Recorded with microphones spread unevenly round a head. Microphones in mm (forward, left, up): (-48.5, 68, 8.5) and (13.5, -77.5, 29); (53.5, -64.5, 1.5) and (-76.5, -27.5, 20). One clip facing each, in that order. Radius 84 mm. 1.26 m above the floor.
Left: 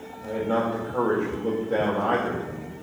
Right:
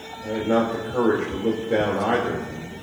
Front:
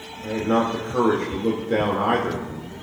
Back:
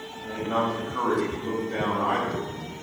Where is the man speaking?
5° left, 2.5 m.